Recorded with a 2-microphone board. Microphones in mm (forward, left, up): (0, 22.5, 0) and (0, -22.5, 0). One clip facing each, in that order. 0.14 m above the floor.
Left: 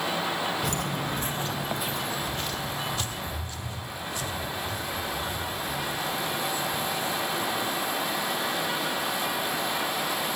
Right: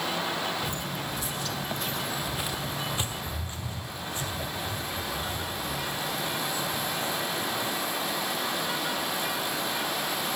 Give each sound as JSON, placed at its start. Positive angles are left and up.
{"t": 0.6, "sound": "footsteps", "side_deg": 70, "distance_m": 0.7}